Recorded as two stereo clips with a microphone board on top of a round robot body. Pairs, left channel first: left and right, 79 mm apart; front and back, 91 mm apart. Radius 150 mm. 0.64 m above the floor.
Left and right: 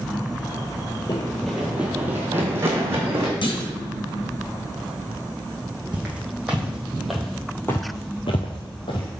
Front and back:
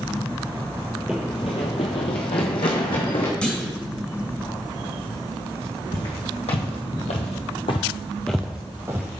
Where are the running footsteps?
105° left, 0.6 m; by 3.3 s 30° right, 2 m.